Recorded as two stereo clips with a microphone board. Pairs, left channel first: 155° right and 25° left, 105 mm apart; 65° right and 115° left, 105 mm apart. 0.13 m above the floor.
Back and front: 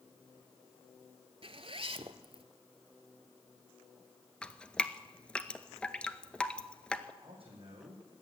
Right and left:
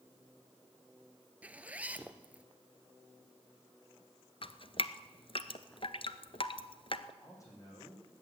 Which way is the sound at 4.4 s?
80° right.